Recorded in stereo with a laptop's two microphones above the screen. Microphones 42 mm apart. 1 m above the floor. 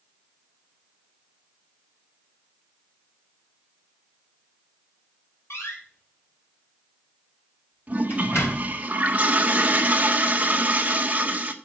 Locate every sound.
5.5 s a door slam: 85° left, 5.5 m
7.9 s a toilet flushing: 35° right (ahead or behind), 1.3 m